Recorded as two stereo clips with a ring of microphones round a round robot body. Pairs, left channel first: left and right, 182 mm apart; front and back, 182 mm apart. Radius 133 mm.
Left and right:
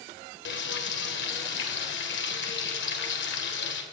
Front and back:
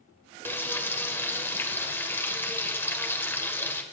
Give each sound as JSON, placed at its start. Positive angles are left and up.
{"t": 0.5, "sound": "frying", "azimuth_deg": 80, "distance_m": 1.8}